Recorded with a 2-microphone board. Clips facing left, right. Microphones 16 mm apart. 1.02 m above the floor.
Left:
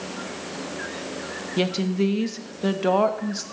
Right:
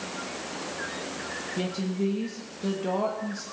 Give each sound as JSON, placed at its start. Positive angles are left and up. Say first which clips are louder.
{"t": 1.6, "sound": "a woman speaking", "louder": "left 7 dB", "side_deg": 45, "distance_m": 1.1}